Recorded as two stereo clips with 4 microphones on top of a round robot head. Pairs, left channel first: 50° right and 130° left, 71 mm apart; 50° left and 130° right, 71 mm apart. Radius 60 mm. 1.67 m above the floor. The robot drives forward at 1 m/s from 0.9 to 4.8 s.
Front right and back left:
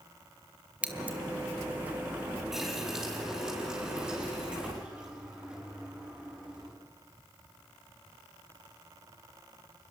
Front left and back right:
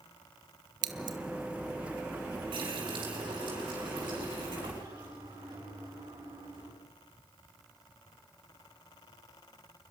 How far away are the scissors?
About 1.0 m.